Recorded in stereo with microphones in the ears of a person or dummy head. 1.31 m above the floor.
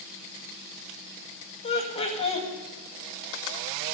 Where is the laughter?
30° left (ahead or behind), 2 m.